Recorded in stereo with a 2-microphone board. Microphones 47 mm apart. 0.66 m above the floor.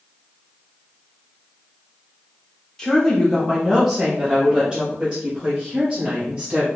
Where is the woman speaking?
10° left (ahead or behind), 1.1 m; by 6.7 s 25° right (ahead or behind), 2 m.